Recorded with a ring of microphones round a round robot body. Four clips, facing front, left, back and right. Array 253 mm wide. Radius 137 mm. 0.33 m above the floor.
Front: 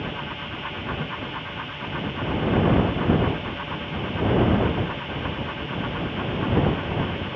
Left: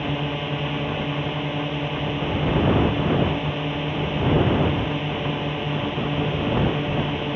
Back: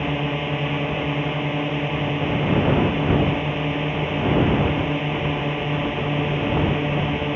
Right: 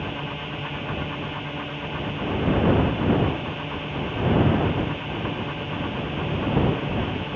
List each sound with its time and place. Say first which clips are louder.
0.0 s a drone: left 5 dB, back 8 dB; 150° left